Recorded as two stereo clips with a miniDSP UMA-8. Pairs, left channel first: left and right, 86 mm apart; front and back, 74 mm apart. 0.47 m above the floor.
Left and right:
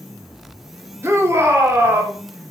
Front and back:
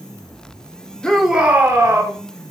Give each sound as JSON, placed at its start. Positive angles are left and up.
{"t": 1.0, "sound": "a shout", "azimuth_deg": -70, "distance_m": 0.8}